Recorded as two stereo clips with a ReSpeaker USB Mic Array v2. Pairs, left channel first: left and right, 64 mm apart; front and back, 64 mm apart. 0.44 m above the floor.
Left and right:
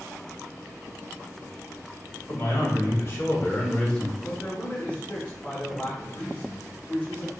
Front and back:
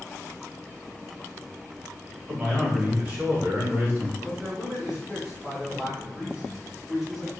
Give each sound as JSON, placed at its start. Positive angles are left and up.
{"t": 2.3, "sound": "a man speaking", "azimuth_deg": 110, "distance_m": 1.9}
{"t": 4.2, "sound": "a man speaking", "azimuth_deg": 110, "distance_m": 1.2}